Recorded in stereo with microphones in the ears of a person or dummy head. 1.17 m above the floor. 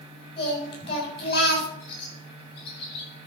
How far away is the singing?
About 7 m.